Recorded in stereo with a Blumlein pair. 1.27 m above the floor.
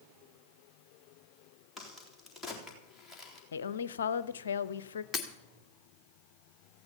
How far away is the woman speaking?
About 0.8 m.